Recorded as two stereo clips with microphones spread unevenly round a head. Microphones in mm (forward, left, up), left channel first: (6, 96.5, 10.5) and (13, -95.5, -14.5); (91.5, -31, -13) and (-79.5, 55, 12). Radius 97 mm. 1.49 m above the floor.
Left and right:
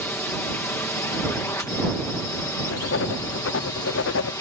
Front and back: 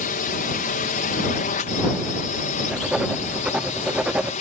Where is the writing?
65° left.